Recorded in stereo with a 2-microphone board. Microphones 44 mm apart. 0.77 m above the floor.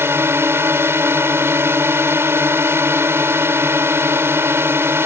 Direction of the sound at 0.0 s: 65° right (ahead or behind).